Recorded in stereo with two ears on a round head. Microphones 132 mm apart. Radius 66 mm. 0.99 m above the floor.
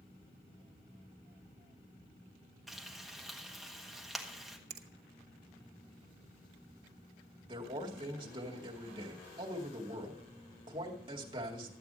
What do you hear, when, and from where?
2.7 s frying: centre (ahead or behind), 1.5 m
4.7 s a finger snap: 60° right (ahead or behind), 1.1 m
7.5 s a man speaking: 35° right (ahead or behind), 2 m